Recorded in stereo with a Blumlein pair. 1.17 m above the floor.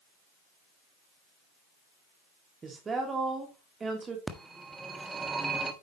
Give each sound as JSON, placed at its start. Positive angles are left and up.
{"t": 2.6, "sound": "a woman speaking", "azimuth_deg": -15, "distance_m": 2.5}
{"t": 4.3, "sound": "a phone ringing", "azimuth_deg": -10, "distance_m": 1.4}